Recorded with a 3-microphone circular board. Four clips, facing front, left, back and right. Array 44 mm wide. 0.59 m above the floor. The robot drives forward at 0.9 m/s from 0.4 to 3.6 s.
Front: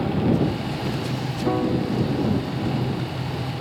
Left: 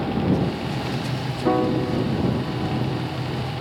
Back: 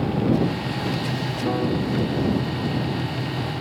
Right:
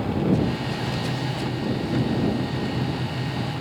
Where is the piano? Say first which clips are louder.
Left 10 dB, front 2 dB; 85° left; by 3.4 s 95° left.